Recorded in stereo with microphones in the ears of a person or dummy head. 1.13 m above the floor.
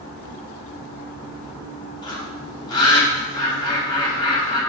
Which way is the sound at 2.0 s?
25° left (ahead or behind).